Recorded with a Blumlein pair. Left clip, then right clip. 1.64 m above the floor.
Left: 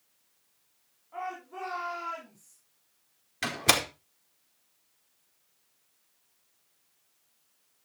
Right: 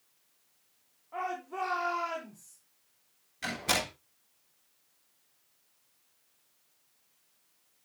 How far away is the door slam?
About 4 m.